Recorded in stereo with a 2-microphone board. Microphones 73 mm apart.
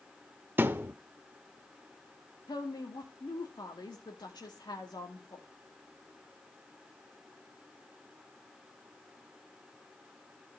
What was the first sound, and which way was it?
A thud, 30° right (ahead or behind).